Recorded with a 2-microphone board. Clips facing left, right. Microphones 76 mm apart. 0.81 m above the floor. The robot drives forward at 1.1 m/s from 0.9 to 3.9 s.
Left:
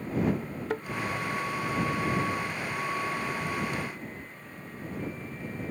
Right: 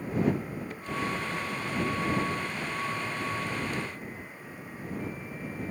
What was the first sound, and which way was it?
A thud, 85° left.